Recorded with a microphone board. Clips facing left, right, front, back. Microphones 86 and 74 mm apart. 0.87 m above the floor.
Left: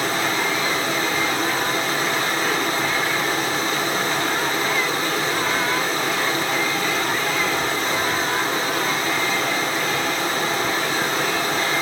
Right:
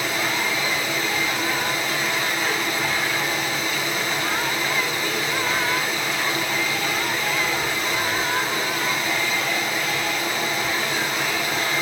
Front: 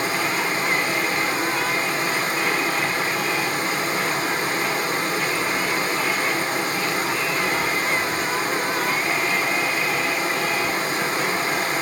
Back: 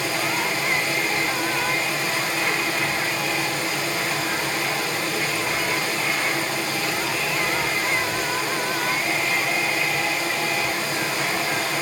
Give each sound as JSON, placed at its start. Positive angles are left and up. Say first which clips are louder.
{"t": 0.0, "sound": "running water", "louder": "left 3 dB, front 1 dB", "azimuth_deg": 40, "distance_m": 2.0}